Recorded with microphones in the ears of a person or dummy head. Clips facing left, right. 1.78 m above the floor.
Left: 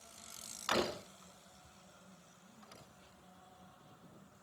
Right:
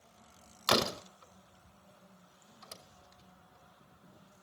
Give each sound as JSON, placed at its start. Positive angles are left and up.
{"t": 0.7, "sound": "a door slam", "side_deg": -70, "distance_m": 3.0}